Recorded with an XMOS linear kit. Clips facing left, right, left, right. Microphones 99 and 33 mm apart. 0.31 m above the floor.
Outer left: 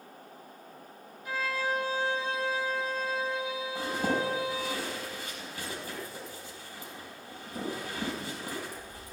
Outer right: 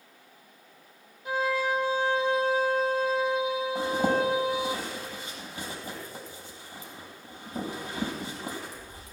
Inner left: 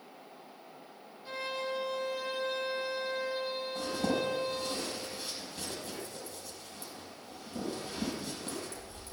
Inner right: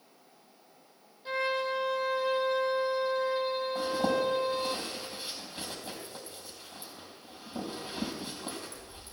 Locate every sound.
1.2 s a violin: 25° right (ahead or behind), 3 m
3.8 s a zipper: 20° right (ahead or behind), 5 m